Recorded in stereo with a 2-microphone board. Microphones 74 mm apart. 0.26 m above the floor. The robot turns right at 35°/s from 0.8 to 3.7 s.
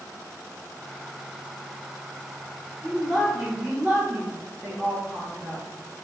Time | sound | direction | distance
2.8 | a woman speaking | 165° left | 1.8 m